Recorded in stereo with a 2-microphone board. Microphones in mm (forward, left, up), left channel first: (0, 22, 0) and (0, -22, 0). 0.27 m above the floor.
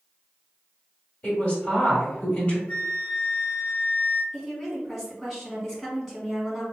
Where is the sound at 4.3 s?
10° left (ahead or behind), 1.9 m.